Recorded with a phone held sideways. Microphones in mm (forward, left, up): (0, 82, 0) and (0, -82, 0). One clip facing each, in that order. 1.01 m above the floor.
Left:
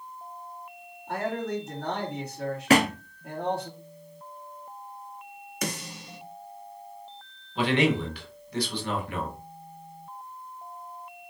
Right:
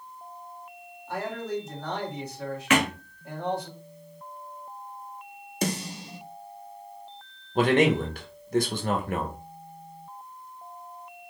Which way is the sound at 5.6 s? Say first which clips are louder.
Right 5 dB; 30° right (ahead or behind).